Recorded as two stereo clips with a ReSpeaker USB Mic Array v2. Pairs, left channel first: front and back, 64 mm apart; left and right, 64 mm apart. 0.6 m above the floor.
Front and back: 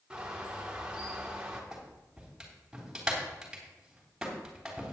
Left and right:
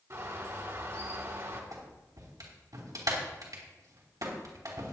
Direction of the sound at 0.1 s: 105° right.